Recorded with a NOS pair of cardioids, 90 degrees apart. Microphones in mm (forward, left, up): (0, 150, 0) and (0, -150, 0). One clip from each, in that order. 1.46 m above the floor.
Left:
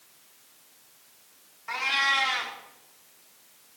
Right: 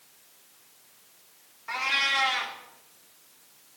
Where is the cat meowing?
5° left, 2 m.